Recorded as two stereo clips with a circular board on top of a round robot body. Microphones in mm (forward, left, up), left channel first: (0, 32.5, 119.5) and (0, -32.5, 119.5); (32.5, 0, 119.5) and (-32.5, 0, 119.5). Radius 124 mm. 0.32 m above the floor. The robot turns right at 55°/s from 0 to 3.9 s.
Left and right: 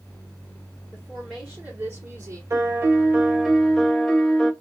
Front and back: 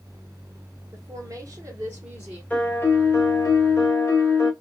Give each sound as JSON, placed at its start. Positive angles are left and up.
{"t": 0.9, "sound": "a woman speaking", "azimuth_deg": 175, "distance_m": 1.4}
{"t": 2.5, "sound": "a piano", "azimuth_deg": -65, "distance_m": 1.2}